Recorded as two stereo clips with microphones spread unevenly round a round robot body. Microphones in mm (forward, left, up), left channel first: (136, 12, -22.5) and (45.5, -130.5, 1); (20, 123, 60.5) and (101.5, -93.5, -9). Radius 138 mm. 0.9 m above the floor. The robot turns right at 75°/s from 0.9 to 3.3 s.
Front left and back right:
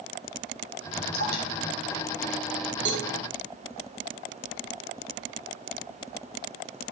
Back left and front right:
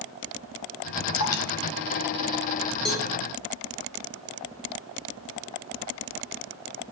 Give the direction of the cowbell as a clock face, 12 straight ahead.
5 o'clock.